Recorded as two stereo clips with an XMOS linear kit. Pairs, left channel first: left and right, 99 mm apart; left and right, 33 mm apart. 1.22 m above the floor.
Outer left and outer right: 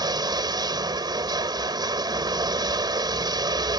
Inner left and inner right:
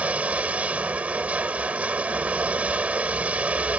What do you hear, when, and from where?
0.0 s running water: 45° right (ahead or behind)